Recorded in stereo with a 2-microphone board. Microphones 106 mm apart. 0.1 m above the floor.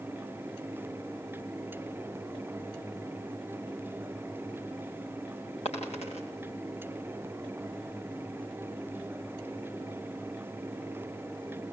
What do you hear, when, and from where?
5.7 s a dropped coin: 80° left, 6 m